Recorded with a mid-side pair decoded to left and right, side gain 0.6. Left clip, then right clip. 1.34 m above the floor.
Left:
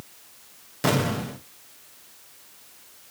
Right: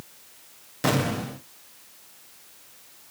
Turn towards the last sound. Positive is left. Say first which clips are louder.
# left 1 dB
turn(degrees=0)